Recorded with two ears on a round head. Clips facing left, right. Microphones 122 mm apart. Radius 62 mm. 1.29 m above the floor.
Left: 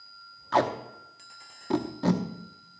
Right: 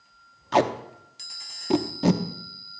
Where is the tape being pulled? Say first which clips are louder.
Right 3 dB; 20° right (ahead or behind), 0.8 m.